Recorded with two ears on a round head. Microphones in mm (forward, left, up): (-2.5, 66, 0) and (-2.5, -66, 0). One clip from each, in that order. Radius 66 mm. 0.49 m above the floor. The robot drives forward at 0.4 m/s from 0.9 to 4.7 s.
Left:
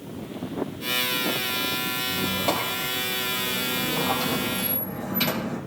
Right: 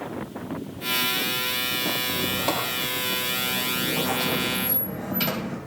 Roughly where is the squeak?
Centre.